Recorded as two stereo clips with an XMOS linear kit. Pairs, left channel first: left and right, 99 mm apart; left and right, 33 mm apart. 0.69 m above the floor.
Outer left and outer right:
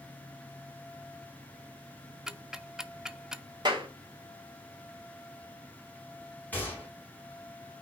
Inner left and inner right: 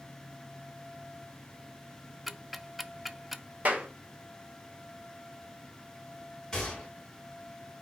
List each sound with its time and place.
2.3 s ticking: 5° right (ahead or behind), 0.5 m
3.6 s a clap: 50° right (ahead or behind), 1.9 m
6.5 s a gunshot: 15° left (ahead or behind), 3.5 m